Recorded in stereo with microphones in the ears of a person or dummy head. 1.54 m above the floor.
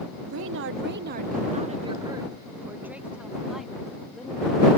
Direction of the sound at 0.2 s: 75° right (ahead or behind).